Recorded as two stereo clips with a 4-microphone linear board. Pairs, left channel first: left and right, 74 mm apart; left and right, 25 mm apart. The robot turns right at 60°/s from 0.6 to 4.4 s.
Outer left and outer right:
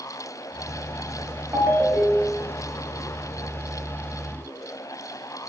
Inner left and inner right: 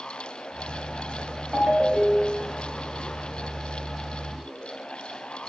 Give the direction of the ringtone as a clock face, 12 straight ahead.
1 o'clock.